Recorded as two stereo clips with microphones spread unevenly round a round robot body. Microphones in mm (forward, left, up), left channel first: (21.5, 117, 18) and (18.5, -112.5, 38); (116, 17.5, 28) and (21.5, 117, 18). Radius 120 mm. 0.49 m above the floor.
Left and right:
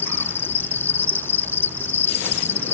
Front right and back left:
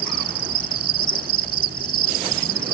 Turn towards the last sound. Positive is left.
turn(degrees=170)